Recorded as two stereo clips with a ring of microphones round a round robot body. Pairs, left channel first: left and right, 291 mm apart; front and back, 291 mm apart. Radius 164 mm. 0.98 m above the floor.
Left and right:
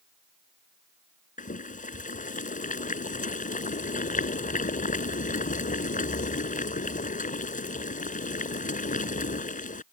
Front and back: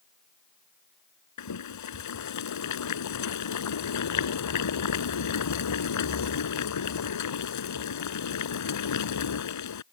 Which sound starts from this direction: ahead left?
Boiling, at 1.4 s.